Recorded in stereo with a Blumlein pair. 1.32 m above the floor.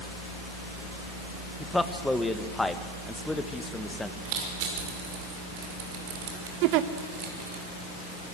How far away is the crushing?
About 5.5 m.